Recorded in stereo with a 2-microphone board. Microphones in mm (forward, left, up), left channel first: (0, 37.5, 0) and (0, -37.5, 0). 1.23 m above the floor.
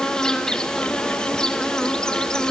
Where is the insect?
10° left (ahead or behind), 2.5 m.